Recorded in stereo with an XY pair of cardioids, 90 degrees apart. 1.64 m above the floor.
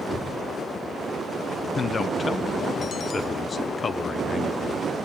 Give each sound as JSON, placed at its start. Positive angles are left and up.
{"t": 0.1, "sound": "knocking", "azimuth_deg": 25, "distance_m": 5.5}
{"t": 1.8, "sound": "a man speaking", "azimuth_deg": 40, "distance_m": 1.0}